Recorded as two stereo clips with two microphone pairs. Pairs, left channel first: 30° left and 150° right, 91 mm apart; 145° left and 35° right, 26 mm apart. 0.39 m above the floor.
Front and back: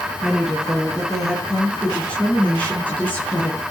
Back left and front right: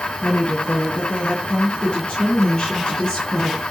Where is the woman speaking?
125° left, 5 m; by 3.6 s 95° left, 5 m.